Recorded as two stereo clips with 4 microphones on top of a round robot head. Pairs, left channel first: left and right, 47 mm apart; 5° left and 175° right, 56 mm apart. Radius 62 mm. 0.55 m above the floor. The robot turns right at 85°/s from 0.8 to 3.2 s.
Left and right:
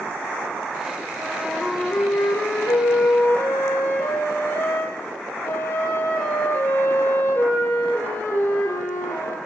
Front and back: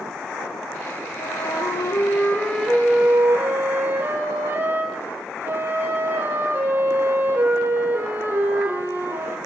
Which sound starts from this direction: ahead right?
A flute, at 1.2 s.